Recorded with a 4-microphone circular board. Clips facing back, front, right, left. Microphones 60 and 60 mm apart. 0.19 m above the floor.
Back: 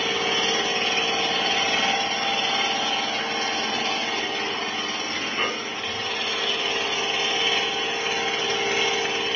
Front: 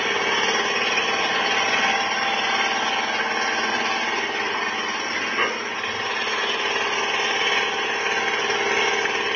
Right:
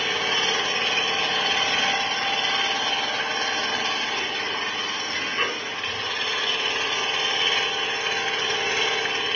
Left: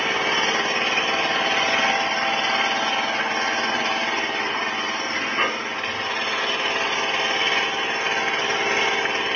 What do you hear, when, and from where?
0.0 s an engine running: 45° left, 1.4 m